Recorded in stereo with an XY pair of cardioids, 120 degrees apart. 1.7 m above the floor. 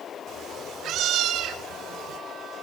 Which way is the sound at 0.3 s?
60° right.